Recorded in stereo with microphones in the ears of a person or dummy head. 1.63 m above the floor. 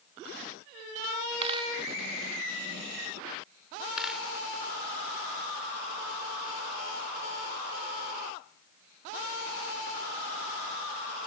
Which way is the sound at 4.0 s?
5° right (ahead or behind).